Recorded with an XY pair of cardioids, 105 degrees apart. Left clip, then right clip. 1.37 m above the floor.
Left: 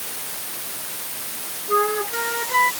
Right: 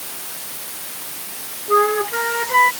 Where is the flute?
30° right.